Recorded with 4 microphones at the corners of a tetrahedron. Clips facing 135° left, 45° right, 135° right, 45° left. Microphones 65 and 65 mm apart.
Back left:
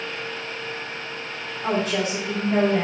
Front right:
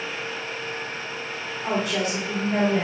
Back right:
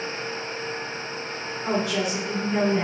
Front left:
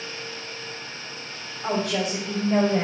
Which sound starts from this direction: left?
A woman speaking, at 1.6 s.